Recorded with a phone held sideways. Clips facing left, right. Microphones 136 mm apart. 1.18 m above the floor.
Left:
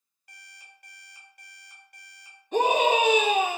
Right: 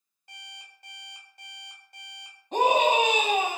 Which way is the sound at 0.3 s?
25° right (ahead or behind).